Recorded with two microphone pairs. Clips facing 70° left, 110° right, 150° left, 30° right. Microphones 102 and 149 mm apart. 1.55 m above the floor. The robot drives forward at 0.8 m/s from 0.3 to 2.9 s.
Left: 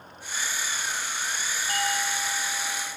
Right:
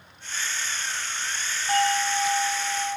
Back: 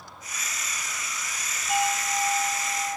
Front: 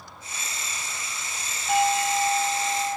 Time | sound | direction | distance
1.7 | a doorbell | 60° right | 2 m